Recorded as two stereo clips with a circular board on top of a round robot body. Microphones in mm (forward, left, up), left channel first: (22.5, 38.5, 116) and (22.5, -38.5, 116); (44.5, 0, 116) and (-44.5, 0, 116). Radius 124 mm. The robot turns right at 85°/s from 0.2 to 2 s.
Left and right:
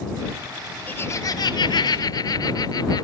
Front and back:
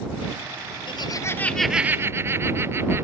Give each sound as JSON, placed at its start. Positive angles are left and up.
{"t": 0.9, "sound": "laughter", "azimuth_deg": 25}